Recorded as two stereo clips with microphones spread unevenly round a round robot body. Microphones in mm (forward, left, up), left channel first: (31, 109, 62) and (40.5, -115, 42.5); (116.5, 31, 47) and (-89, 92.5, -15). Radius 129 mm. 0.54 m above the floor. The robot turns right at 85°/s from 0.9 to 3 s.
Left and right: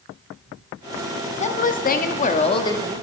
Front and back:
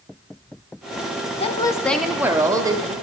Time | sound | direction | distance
1.4 | a woman speaking | 50° left | 0.8 m